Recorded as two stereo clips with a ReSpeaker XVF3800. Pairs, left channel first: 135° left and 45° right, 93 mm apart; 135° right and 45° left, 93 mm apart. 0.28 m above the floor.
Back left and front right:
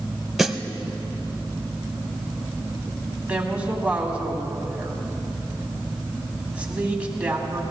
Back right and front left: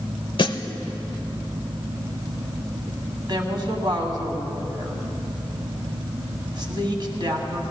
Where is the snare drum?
135° right, 0.6 m.